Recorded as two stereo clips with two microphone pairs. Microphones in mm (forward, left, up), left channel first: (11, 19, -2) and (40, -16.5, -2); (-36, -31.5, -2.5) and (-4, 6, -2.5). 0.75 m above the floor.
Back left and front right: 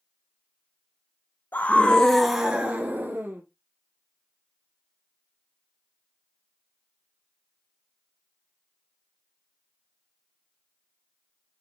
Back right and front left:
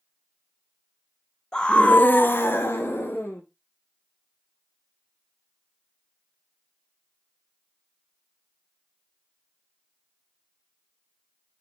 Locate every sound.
1.5 s a scream: 160° left, 0.8 m; by 3.4 s 90° right, 1.4 m